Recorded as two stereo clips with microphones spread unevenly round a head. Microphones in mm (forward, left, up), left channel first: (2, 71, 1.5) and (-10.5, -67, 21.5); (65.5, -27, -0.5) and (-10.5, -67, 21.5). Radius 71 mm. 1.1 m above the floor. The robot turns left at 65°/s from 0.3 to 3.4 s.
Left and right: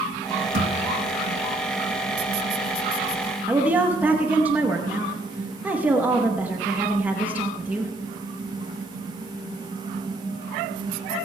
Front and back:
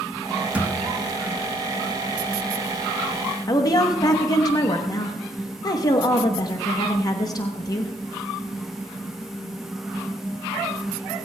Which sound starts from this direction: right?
A thud, at 0.5 s.